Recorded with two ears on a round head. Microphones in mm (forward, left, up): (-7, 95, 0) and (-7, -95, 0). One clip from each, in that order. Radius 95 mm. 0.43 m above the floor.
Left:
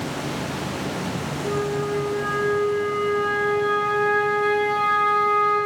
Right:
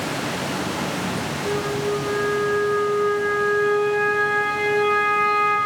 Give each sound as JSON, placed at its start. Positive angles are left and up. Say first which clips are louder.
{"t": 1.4, "sound": "a flute", "louder": "even", "side_deg": 0, "distance_m": 3.5}